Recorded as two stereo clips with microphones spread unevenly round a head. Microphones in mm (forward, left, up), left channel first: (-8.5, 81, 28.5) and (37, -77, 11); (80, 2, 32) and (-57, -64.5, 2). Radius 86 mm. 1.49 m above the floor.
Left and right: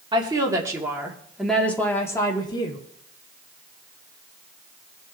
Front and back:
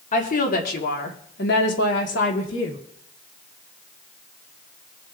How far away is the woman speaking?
About 2.5 m.